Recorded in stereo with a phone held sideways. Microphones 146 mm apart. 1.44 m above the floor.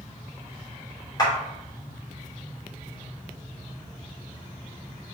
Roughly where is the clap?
Left.